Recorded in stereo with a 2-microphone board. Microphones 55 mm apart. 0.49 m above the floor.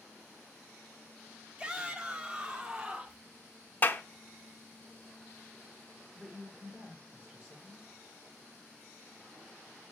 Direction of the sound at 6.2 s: 25° right (ahead or behind).